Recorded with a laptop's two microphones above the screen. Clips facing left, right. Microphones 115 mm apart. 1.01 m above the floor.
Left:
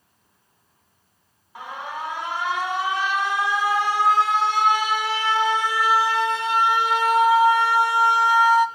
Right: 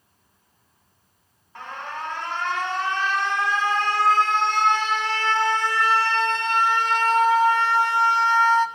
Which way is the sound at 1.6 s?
10° left (ahead or behind).